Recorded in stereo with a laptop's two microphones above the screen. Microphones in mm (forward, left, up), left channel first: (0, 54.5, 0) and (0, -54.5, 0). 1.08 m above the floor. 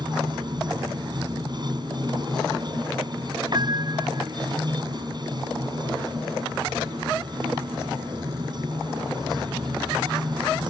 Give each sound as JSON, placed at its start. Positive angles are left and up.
{"t": 0.0, "sound": "running water", "side_deg": -45}
{"t": 3.5, "sound": "a piano", "side_deg": -45}